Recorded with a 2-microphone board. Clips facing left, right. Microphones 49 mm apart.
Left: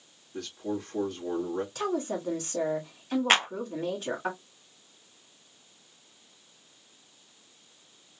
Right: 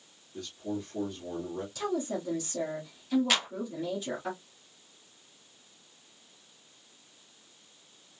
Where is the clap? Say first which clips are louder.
Left 6 dB; 40° left (ahead or behind), 0.5 m.